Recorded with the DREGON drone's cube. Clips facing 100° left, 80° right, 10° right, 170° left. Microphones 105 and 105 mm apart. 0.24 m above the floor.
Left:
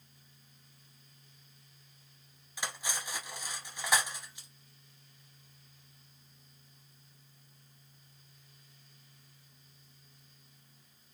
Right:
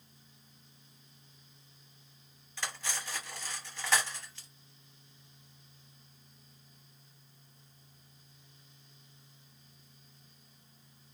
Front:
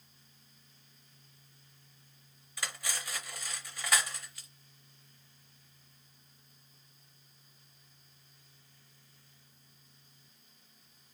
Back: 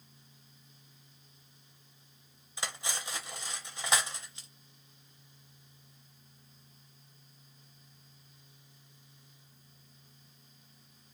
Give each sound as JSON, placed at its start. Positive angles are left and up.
{"t": 2.6, "sound": "cutlery clinking", "azimuth_deg": 150, "distance_m": 0.6}